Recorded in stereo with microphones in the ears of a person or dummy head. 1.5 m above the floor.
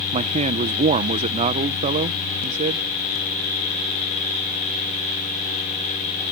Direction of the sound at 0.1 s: 30° right (ahead or behind).